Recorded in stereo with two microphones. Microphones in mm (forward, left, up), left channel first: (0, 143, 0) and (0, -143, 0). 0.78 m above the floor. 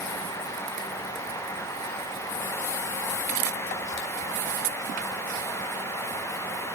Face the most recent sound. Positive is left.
No sound to turn to.